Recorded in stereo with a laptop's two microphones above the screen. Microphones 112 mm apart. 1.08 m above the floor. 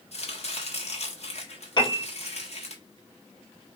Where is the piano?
40° left (ahead or behind), 1.4 m.